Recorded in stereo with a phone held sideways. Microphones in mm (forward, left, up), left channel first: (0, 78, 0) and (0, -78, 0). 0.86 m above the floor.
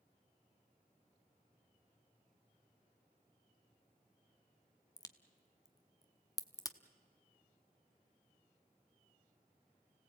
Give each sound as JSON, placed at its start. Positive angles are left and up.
{"t": 5.0, "sound": "a crack", "side_deg": 20, "distance_m": 0.9}